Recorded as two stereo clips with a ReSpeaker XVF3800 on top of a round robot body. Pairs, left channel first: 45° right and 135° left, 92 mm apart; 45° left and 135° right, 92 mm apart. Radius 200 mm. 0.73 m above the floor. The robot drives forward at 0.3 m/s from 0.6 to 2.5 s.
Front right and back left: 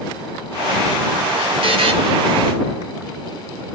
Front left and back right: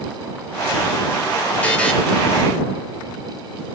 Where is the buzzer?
120° left, 0.9 m; by 1.9 s 125° left, 0.9 m.